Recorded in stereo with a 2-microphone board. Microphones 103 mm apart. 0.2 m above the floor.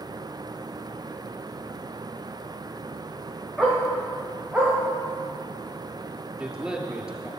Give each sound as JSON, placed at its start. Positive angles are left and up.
{"t": 3.6, "sound": "a dog barking", "side_deg": -5, "distance_m": 9.0}
{"t": 6.4, "sound": "a man speaking", "side_deg": -5, "distance_m": 3.5}